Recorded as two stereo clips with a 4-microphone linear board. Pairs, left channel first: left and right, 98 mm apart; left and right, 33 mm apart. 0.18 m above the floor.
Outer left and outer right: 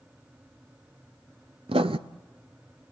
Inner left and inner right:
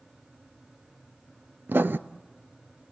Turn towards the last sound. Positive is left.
turn(degrees=-80)